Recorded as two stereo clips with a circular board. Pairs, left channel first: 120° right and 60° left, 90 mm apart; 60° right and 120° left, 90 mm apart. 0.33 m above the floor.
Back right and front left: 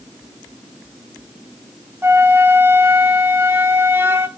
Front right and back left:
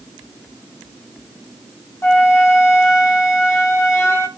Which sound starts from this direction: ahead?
A flute, at 2.0 s.